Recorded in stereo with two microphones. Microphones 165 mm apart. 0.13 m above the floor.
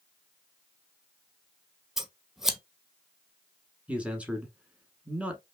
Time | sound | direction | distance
2.0 | scissors | centre (ahead or behind) | 0.8 m
3.9 | a man speaking | 5° right (ahead or behind) | 1.2 m